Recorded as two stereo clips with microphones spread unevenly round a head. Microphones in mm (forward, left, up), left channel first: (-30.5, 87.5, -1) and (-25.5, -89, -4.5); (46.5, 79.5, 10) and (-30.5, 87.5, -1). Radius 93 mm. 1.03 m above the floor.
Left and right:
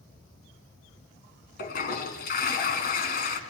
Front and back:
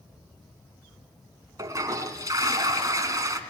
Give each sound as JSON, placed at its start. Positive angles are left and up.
{"t": 1.6, "sound": "a toilet flushing", "azimuth_deg": 130, "distance_m": 3.0}